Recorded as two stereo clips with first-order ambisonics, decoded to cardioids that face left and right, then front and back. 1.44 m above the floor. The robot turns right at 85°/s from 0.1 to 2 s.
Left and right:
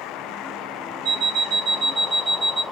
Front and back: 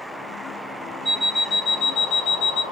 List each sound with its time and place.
1.1 s an alarm clock: 110° right, 0.8 m; by 2.6 s 30° right, 0.8 m